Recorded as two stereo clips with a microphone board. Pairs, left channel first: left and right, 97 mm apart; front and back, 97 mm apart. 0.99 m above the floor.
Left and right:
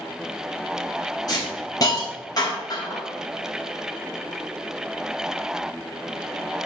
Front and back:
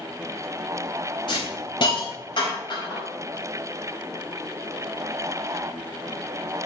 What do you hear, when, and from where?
1.3 s a hiss: 40° left, 3.5 m